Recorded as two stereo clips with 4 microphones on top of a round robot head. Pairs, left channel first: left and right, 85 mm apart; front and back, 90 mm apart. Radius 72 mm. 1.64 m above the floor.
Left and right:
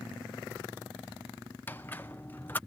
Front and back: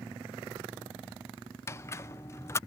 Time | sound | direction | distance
1.7 | a squeak | 30° left | ?